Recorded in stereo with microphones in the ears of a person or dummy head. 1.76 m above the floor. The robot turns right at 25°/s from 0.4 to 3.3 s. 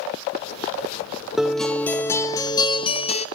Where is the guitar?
Straight ahead, 0.7 m; by 3.3 s 50° left, 0.7 m.